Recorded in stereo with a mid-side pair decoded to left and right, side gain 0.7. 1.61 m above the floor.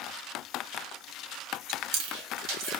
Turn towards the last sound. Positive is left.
turn(degrees=-70)